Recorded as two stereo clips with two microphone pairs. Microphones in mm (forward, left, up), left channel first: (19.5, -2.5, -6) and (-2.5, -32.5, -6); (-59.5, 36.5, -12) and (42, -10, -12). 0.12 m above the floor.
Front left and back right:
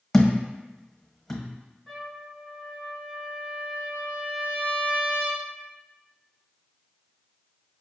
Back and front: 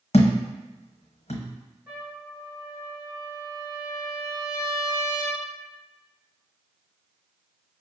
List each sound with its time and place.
0.1 s a thud: 135° left, 0.9 m
1.9 s a trumpet: 80° right, 1.7 m